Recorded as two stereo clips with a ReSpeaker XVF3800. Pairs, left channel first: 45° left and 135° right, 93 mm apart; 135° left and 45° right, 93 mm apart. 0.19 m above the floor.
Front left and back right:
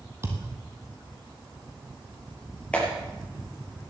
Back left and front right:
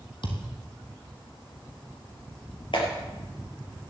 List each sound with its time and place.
0.2 s a thud: 165° left, 2.5 m
2.7 s a clap: 120° left, 4.5 m